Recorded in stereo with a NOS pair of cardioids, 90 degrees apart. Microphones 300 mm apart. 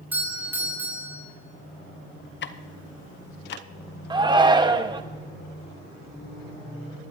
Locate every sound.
0.1 s a doorbell: 5° right, 5 m
2.4 s ticking: 40° left, 0.8 m
4.1 s a shout: 15° right, 1.3 m